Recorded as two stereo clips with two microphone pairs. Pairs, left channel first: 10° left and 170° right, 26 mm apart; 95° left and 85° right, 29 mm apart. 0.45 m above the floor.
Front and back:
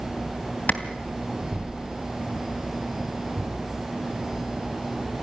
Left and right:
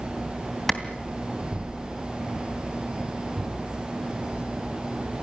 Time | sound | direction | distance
0.7 | a clap | 15° left | 2.5 m